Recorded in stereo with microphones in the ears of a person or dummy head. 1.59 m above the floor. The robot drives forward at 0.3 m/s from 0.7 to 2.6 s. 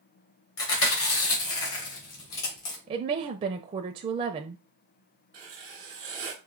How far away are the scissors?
I don't hear scissors.